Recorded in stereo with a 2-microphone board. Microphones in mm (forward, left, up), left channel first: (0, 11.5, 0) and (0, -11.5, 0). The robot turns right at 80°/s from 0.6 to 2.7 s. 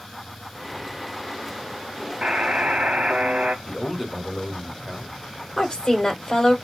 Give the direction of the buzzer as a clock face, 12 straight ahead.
4 o'clock.